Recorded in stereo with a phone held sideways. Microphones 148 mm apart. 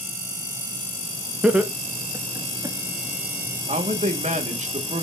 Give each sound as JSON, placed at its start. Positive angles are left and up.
{"t": 1.4, "sound": "laughter", "side_deg": -5, "distance_m": 1.1}
{"t": 3.7, "sound": "a man speaking", "side_deg": -55, "distance_m": 1.5}